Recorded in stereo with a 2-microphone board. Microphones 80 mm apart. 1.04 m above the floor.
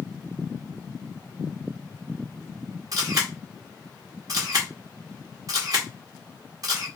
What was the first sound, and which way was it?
A camera shutter, 50° right (ahead or behind).